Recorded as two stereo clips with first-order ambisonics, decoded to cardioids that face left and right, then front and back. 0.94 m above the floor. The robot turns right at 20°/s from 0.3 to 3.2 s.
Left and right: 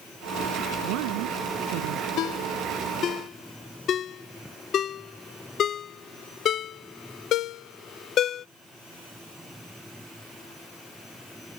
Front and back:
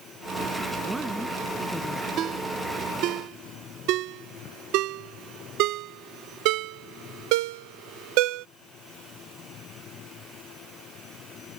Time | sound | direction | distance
0.8 | a woman speaking | 100° right | ?
2.2 | a ringtone | 130° left | ?